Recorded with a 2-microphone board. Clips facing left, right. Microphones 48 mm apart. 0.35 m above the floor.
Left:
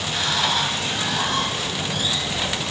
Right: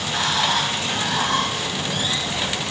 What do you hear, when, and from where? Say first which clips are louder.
0.0 s running water: right 1 dB; 50° right (ahead or behind), 1.7 m